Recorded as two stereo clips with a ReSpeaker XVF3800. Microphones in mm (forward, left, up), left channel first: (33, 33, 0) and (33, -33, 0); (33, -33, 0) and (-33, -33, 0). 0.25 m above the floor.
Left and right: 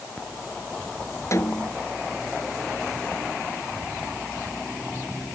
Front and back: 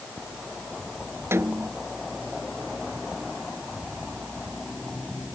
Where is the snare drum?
130° left.